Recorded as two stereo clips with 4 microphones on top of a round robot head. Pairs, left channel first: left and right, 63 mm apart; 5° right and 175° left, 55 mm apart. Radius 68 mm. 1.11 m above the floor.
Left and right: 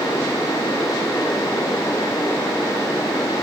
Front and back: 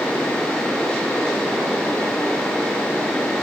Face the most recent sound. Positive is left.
No sound to turn to.